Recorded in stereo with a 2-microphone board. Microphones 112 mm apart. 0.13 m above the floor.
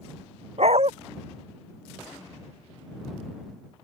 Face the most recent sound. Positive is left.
turn(degrees=-60)  # may be behind; listen again after turning